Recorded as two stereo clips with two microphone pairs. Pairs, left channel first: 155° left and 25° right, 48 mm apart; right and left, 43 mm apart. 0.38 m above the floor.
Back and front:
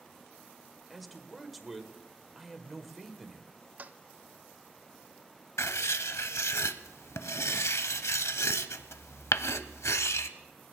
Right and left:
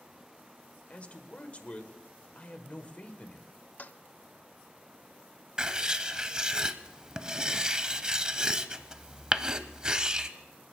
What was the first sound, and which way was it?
A man speaking, 110° right.